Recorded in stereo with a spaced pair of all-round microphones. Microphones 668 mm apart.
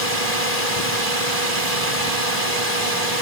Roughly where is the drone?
Right.